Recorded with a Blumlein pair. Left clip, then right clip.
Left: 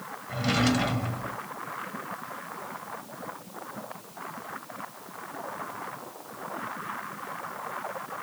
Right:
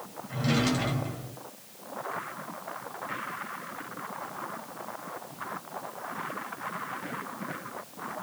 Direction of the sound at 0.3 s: 15° left.